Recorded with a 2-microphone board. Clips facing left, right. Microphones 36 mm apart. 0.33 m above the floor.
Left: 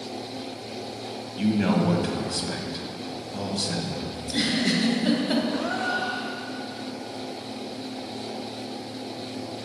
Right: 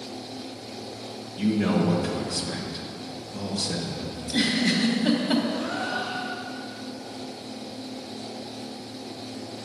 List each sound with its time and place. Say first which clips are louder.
1.4 s a man speaking: even; 25° left (ahead or behind), 1.7 m
4.2 s a giggle: right 2 dB; centre (ahead or behind), 2 m
5.5 s a gasp: left 2 dB; 80° left, 3.5 m